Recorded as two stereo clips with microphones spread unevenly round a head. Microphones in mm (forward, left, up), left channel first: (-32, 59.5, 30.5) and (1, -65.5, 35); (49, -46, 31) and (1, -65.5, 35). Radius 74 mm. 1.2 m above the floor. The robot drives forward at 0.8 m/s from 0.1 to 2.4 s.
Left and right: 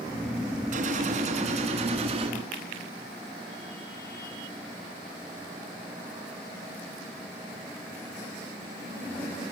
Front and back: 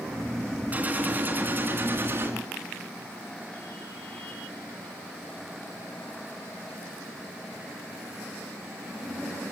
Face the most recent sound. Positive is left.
turn(degrees=-125)